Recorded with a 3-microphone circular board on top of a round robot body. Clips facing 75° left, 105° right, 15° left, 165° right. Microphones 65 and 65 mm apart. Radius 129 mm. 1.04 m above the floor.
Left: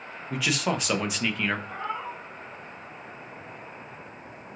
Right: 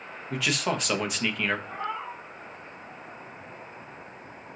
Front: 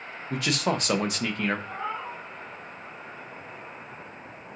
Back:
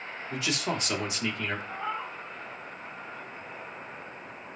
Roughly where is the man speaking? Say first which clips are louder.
Left 1 dB, front 5 dB; ahead.